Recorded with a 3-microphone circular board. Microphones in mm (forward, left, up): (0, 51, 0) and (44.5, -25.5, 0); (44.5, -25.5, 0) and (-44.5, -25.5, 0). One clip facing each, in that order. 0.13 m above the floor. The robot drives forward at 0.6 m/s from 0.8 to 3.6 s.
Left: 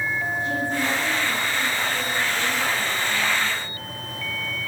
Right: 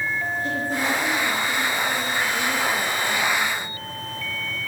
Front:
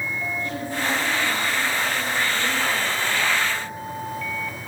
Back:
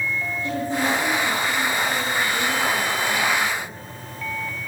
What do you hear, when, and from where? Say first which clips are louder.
0.4 s a woman speaking: even, back 6 dB; 105° right, 8.5 m; by 3.8 s 115° right, 9 m